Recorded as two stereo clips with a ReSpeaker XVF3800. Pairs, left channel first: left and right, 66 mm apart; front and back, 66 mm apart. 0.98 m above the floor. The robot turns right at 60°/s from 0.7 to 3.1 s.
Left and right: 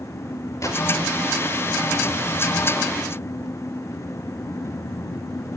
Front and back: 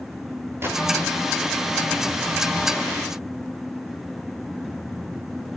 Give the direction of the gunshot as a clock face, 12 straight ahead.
8 o'clock.